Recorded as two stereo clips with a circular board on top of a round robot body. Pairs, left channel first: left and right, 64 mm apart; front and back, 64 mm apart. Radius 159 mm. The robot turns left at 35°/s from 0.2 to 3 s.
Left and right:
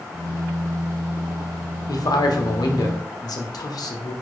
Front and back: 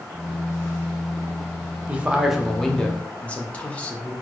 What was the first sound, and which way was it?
A man speaking, 110° left.